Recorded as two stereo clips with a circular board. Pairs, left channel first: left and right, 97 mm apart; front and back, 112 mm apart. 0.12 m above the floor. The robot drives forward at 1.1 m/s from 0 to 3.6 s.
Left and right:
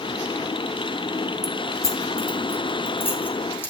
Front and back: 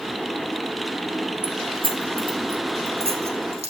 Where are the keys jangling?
135° left, 2 m; by 3.7 s 160° left, 4 m.